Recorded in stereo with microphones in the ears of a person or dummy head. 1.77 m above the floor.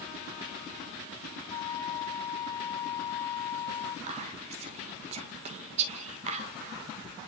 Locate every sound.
1.5 s a flute: 25° left (ahead or behind), 1.6 m
4.1 s whispering: 30° right (ahead or behind), 2 m